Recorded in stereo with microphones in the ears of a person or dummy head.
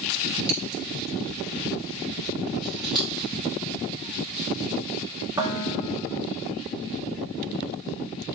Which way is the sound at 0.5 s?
25° right (ahead or behind).